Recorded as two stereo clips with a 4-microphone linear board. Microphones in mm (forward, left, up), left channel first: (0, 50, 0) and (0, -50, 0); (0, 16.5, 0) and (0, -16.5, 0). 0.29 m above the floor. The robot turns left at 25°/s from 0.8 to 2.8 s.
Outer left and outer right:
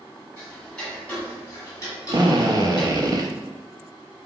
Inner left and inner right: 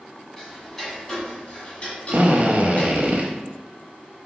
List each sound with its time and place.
0.4 s ticking: 10° left (ahead or behind), 1.5 m; by 3.0 s 50° left (ahead or behind), 1.5 m
2.1 s a drill: 45° right (ahead or behind), 0.5 m; by 3.3 s 40° right (ahead or behind), 0.5 m